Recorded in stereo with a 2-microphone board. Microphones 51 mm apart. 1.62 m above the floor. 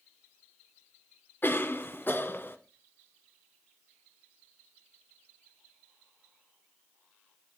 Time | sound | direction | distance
1.4 | a cough | 45° left (ahead or behind) | 1.1 m